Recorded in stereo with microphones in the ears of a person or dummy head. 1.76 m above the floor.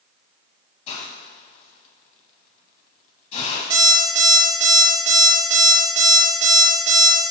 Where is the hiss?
40° left (ahead or behind), 1.1 m.